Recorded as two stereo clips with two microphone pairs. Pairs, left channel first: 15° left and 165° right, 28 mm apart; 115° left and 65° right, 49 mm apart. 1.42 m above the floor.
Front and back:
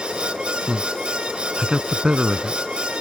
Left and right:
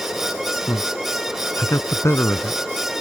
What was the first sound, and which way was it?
A man speaking, 140° left.